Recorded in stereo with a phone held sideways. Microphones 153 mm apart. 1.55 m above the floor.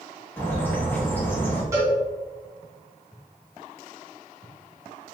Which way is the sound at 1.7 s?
20° right (ahead or behind).